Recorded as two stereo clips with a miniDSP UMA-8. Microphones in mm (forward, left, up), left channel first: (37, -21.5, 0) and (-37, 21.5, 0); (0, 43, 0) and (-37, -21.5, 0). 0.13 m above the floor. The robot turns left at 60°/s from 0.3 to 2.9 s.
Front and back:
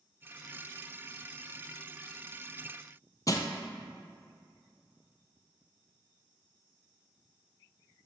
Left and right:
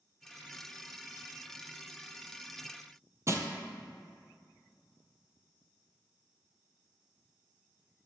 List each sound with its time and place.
3.3 s crushing: 75° right, 0.6 m